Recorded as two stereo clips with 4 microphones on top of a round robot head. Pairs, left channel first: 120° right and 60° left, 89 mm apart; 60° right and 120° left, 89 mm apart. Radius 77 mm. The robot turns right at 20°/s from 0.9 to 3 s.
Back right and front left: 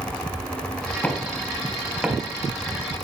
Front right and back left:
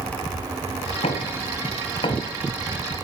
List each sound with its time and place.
1.0 s knocking: 45° right, 2 m; by 2.3 s 20° right, 2 m